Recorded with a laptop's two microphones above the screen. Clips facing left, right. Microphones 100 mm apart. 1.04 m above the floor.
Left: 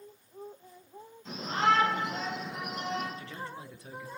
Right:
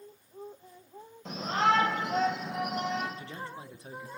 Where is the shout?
75° right (ahead or behind), 4.5 m; by 3.1 s 80° right, 6.5 m.